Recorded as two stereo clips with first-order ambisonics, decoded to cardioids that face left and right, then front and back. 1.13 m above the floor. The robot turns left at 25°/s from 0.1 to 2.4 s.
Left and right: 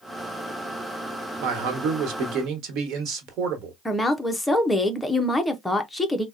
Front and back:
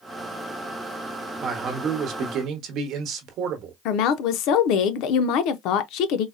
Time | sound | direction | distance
1.4 | a man speaking | 110° right | 1.1 m
3.9 | a woman speaking | 5° left | 0.5 m